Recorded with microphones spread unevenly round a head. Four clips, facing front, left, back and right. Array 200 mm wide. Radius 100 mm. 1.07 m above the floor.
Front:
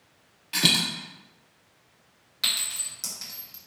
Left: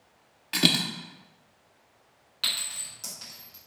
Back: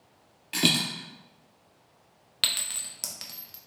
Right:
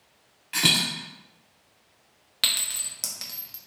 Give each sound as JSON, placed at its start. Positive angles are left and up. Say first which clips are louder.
{"t": 0.5, "sound": "a dropped coin", "louder": "left 1 dB, back 1 dB", "azimuth_deg": 125, "distance_m": 0.6}
{"t": 2.4, "sound": "a clink", "louder": "right 3 dB, front 1 dB", "azimuth_deg": -115, "distance_m": 0.8}